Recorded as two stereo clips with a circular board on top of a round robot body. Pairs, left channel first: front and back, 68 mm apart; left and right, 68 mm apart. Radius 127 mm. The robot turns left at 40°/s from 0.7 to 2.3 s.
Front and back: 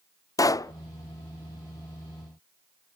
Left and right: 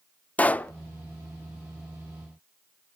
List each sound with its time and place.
0.4 s a pop: 25° left, 0.5 m; by 0.7 s 20° left, 0.5 m